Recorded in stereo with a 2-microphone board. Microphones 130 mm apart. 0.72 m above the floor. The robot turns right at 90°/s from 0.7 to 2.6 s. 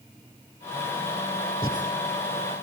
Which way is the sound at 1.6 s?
30° left (ahead or behind).